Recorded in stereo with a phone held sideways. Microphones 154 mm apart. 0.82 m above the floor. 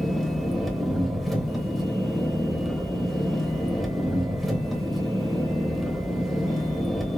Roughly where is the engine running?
Centre.